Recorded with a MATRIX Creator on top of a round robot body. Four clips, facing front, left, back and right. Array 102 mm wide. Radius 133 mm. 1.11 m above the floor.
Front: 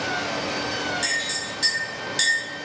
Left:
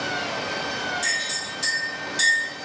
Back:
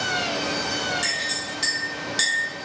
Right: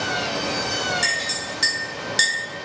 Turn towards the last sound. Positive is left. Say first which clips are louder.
# right 3 dB, even
turn(degrees=-95)